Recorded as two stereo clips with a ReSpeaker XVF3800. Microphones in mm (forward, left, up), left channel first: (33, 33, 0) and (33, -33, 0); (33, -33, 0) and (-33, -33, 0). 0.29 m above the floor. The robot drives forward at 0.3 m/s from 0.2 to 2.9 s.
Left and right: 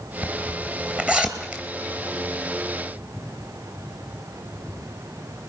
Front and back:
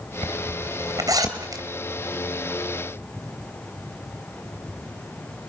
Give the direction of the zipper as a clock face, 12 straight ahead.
5 o'clock.